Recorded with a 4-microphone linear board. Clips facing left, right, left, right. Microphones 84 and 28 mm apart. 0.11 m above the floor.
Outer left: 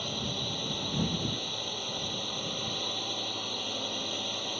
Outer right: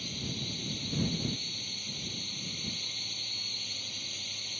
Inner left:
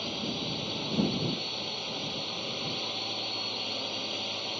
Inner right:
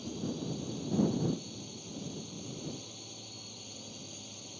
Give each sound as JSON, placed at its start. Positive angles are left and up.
{"t": 0.0, "sound": "a drone", "side_deg": 55}